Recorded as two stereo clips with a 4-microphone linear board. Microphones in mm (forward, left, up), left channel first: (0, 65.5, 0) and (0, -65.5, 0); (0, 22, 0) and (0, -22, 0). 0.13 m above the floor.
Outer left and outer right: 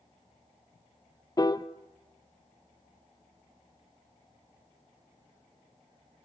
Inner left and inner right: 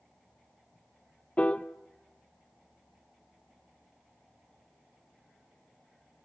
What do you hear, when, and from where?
1.4 s a piano: 30° left (ahead or behind), 0.7 m